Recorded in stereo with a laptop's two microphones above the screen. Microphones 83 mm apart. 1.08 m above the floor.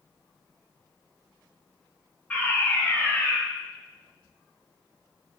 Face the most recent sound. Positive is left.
turn(degrees=20)  # may be behind; listen again after turning